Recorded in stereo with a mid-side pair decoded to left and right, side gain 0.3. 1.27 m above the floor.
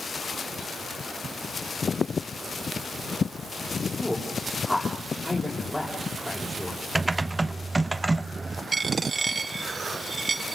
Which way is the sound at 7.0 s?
25° right.